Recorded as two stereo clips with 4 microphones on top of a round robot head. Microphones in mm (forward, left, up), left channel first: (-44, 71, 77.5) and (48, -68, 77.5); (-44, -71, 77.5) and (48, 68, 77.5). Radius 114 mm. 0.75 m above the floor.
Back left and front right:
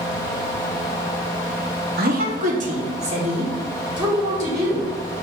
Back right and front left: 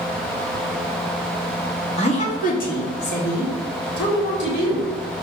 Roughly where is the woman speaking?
Right.